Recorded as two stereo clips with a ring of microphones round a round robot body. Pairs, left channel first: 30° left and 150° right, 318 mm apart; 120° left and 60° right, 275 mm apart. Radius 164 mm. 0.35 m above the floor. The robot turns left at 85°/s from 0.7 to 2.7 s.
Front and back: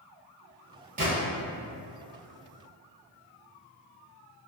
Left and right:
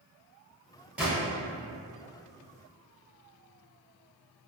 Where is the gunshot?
140° right, 1.3 m; by 1.1 s 150° right, 1.3 m.